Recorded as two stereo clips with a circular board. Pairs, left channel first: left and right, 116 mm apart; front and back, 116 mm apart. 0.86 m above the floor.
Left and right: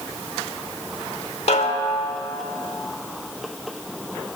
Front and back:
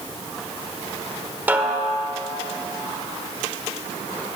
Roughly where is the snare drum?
Left.